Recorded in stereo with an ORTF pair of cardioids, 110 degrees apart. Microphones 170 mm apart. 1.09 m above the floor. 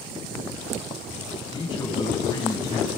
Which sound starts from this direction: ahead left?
A man speaking, at 1.5 s.